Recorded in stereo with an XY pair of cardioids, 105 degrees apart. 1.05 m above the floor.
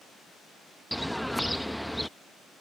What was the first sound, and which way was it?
A bird, 5° left.